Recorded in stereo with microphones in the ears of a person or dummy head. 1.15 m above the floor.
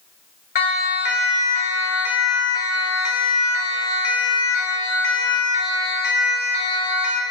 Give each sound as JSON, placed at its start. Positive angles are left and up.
{"t": 0.6, "sound": "a siren", "side_deg": 40, "distance_m": 2.5}